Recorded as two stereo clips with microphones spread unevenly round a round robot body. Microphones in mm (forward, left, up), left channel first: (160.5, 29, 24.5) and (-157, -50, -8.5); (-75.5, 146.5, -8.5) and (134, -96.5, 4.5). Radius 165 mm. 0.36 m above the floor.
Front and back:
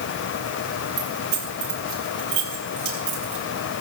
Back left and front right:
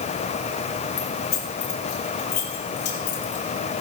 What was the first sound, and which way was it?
Keys jangling, 150° right.